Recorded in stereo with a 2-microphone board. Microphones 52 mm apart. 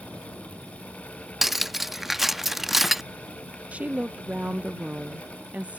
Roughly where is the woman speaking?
Right.